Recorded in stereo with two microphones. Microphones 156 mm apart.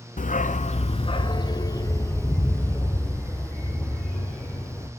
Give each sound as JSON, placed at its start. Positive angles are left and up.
{"t": 0.2, "sound": "a dog barking", "side_deg": 55, "distance_m": 0.6}